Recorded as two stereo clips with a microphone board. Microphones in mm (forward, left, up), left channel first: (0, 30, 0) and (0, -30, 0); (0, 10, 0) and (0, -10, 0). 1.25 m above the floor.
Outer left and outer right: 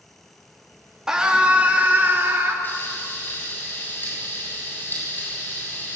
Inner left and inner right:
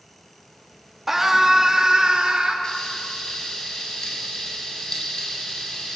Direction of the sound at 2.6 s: 35° left (ahead or behind).